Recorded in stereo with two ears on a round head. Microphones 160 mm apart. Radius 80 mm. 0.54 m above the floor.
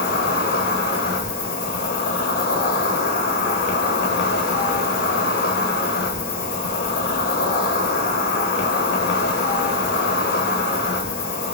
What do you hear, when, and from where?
0.0 s an insect: 60° left (ahead or behind), 0.8 m